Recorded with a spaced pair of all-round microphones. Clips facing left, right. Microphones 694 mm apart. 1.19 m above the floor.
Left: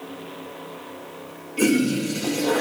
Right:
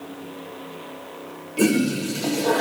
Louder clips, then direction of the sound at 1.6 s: Even; 60° right (ahead or behind).